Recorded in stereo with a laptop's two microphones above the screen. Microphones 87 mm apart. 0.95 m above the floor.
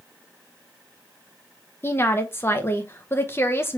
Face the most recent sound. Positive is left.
turn(degrees=30)  # may be behind; listen again after turning